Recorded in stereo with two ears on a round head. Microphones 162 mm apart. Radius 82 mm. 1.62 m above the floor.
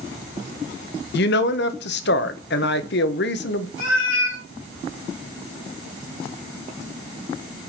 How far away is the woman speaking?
About 0.8 m.